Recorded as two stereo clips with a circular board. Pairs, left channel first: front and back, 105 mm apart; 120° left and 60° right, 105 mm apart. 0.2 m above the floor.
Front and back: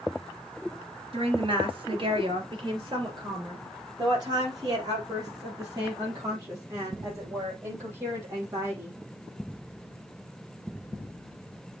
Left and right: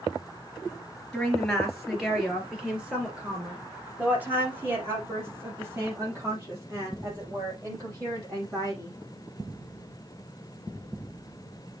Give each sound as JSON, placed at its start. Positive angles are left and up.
{"t": 1.1, "sound": "a woman speaking", "azimuth_deg": -155, "distance_m": 3.0}